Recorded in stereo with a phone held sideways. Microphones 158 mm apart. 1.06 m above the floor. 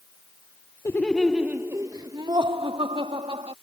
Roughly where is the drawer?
I don't hear a drawer.